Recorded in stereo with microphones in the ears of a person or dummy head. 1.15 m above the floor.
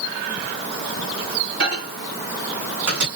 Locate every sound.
1.6 s a microwave: 60° right (ahead or behind), 1.9 m